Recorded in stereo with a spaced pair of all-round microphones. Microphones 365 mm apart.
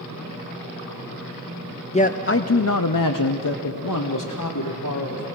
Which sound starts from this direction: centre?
A man speaking, at 1.9 s.